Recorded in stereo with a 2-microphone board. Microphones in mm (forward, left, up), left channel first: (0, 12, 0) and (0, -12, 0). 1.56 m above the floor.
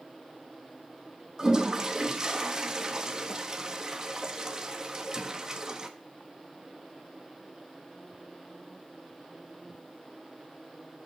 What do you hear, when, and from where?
1.4 s a toilet flushing: 25° right (ahead or behind), 1.4 m